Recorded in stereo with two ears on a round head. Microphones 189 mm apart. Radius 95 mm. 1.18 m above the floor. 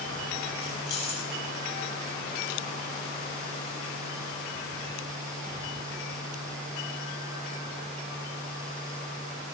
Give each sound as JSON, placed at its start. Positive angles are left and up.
{"t": 0.6, "sound": "keys jangling", "side_deg": 55, "distance_m": 7.0}